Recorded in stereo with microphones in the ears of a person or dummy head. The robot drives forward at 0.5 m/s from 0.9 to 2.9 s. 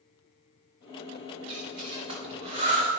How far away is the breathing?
About 3.5 m.